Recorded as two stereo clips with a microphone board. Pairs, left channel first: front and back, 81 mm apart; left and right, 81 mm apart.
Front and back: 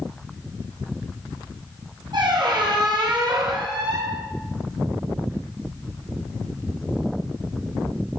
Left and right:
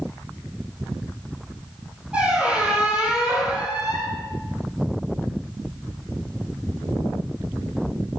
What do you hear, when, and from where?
2.1 s a squeak: 165° right, 2 m